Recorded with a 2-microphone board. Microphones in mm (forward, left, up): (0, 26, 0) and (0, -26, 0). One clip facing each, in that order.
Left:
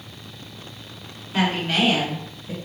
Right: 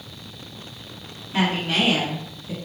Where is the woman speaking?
5° left (ahead or behind), 1.8 m; by 2.6 s centre (ahead or behind), 2.5 m.